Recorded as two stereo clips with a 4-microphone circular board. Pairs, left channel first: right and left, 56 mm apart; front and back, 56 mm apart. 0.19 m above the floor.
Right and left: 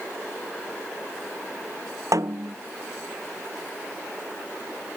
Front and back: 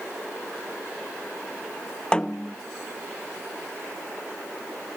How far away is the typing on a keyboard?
I don't hear typing on a keyboard.